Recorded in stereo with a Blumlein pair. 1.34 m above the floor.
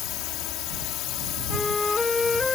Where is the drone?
40° left.